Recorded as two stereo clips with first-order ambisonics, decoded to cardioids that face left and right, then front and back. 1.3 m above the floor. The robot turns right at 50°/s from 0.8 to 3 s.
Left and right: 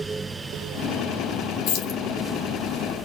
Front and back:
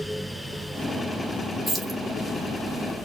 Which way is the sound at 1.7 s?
90° left.